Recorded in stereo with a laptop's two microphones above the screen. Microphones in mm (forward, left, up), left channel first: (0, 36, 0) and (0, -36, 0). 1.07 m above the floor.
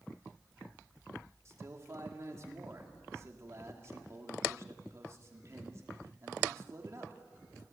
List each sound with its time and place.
1.4 s a man speaking: 45° right (ahead or behind), 2 m